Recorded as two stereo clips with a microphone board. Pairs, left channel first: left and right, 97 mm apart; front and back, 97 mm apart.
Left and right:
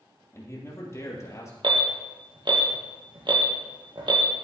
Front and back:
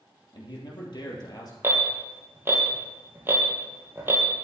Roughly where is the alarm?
Behind right.